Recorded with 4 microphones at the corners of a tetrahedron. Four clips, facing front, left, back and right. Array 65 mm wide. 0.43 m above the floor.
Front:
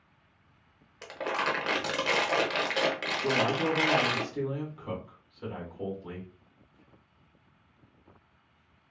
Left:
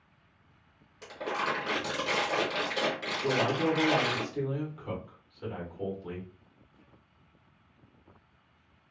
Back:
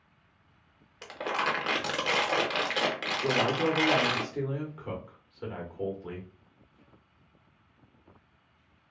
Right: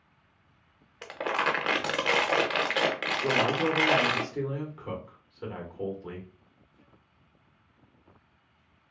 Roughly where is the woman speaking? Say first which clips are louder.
Right 1 dB, back 1 dB; behind right.